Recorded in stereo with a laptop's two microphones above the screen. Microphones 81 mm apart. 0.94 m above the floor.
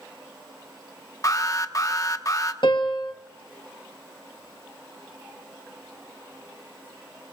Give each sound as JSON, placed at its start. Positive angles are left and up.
{"t": 1.2, "sound": "an alarm", "side_deg": 40, "distance_m": 1.1}
{"t": 2.6, "sound": "a piano", "side_deg": 65, "distance_m": 1.2}